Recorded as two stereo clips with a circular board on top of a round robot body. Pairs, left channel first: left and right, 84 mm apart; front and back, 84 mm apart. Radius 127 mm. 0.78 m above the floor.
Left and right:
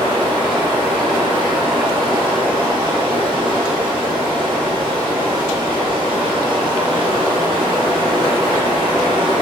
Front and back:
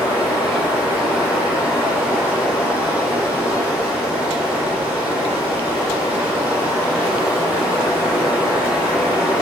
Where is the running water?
105° right, 1.9 m.